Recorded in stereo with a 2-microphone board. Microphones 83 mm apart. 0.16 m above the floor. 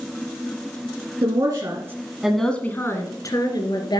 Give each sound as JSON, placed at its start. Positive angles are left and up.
{"t": 1.2, "sound": "a woman speaking", "side_deg": -55, "distance_m": 1.9}